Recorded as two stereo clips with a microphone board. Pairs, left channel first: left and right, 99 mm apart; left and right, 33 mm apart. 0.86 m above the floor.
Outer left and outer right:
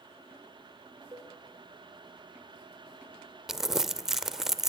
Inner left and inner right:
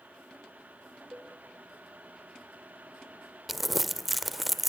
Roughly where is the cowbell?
Right.